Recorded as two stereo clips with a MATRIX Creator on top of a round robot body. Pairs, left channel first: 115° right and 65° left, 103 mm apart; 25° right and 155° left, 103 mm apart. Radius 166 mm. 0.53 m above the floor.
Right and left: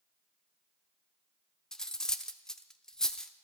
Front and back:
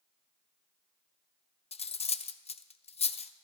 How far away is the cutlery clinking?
About 0.7 m.